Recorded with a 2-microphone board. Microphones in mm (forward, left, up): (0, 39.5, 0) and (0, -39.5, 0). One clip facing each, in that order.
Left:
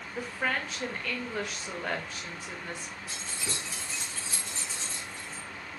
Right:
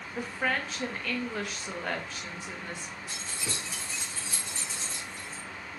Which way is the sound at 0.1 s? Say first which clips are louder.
Right 1 dB; centre (ahead or behind).